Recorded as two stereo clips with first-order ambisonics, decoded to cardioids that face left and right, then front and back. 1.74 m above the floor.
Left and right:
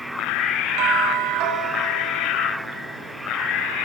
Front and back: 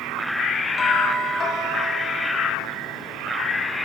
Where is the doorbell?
65° right, 1.3 m.